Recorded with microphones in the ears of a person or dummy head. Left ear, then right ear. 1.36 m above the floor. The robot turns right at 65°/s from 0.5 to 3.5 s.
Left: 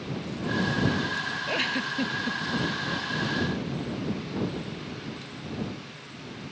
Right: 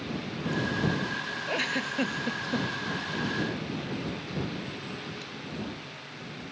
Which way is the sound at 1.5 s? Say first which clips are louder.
Left 1 dB; centre (ahead or behind).